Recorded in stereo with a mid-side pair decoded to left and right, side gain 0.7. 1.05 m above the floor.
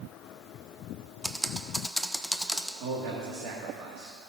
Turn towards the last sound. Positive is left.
turn(degrees=-65)